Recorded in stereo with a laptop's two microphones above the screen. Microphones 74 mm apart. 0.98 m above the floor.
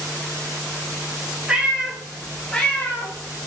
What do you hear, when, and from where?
1.5 s a cat meowing: 15° right (ahead or behind), 1.5 m; by 3.5 s 40° left (ahead or behind), 1.3 m